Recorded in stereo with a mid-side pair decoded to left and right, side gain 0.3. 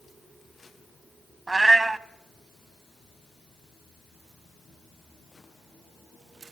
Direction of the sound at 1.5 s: 35° right.